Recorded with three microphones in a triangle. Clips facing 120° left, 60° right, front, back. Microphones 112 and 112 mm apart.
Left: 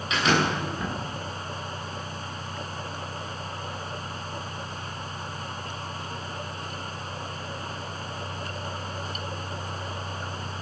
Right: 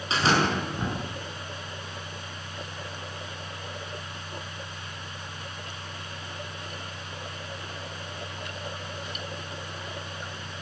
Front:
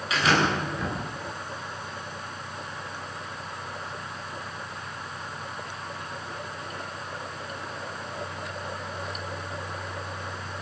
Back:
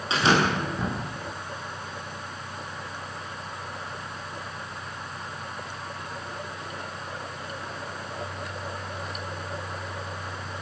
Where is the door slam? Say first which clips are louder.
Even, back 1 dB; 120° right, 10 m.